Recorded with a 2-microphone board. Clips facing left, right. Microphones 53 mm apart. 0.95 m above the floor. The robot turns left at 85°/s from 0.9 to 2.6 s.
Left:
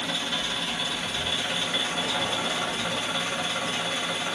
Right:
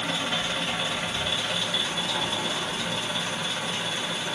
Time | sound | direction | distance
0.0 | an engine running | 145° right | 1.3 m